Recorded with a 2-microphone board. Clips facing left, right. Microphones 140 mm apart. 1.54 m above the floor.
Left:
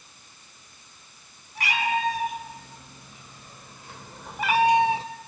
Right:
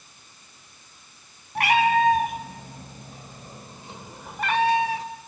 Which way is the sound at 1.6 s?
65° right (ahead or behind).